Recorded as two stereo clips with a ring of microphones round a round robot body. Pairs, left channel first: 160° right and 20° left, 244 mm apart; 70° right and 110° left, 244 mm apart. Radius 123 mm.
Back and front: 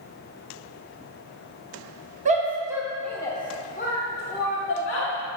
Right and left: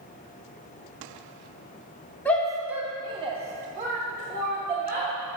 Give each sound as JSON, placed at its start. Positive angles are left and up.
{"t": 2.2, "sound": "a shout", "azimuth_deg": 10, "distance_m": 0.8}